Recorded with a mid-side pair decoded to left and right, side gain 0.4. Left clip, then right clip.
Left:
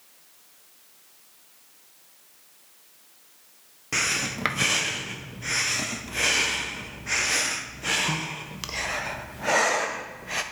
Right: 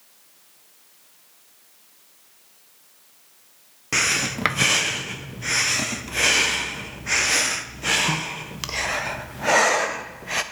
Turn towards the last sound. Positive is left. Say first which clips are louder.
# right 4 dB
turn(degrees=-30)